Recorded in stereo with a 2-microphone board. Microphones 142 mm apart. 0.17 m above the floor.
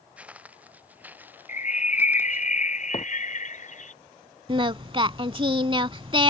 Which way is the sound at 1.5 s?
60° left (ahead or behind).